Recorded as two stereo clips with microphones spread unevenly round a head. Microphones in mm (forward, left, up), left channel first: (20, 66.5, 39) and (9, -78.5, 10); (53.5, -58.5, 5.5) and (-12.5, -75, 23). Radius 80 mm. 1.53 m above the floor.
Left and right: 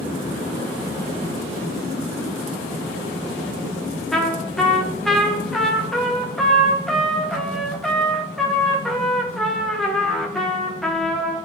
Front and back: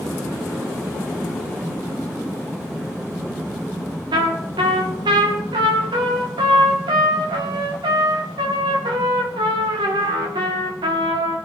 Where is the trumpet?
175° left, 1.5 m.